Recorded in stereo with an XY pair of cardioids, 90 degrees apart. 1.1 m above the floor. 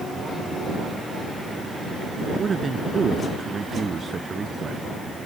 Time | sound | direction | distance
2.3 | a man speaking | 40° right | ?